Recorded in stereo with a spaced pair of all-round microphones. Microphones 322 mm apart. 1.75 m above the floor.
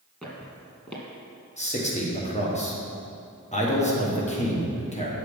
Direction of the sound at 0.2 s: 5° left (ahead or behind).